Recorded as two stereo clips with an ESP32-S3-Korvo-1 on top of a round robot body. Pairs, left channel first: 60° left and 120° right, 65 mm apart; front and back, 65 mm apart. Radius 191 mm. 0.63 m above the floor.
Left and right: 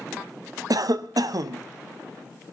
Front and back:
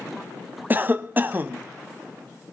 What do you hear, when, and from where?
0.7 s a cough: 120° right, 1.1 m